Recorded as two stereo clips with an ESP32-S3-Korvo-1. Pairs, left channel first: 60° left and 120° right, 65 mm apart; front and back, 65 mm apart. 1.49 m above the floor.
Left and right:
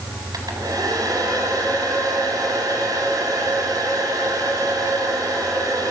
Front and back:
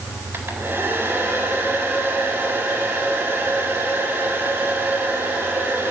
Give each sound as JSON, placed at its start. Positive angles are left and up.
{"t": 0.3, "sound": "a hair dryer", "azimuth_deg": -130, "distance_m": 4.0}